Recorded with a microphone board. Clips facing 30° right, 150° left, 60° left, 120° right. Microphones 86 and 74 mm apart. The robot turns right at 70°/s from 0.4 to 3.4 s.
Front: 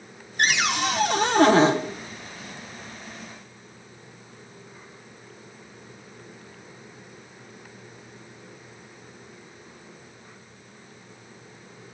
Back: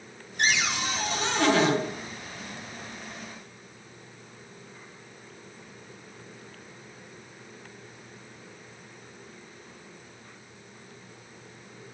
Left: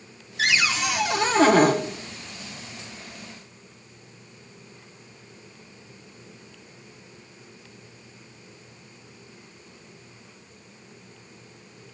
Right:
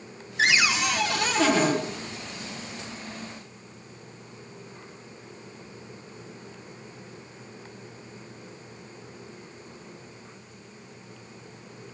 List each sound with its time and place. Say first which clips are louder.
0.4 s a cupboard door: front 4 dB, right 1 dB; 60° right, 1.1 m; by 1.8 s 35° left, 1.1 m